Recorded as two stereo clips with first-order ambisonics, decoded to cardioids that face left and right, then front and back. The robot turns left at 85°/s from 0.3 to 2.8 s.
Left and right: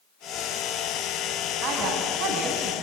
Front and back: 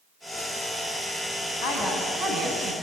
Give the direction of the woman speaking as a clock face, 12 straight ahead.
1 o'clock.